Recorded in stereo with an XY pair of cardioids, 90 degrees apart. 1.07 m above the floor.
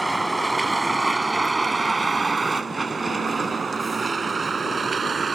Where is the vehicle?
15° right; by 5.3 s 45° right.